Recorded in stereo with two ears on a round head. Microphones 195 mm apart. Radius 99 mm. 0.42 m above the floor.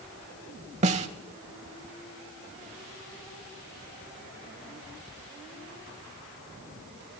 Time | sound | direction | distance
0.8 | a snare drum | 30° right (ahead or behind) | 0.7 m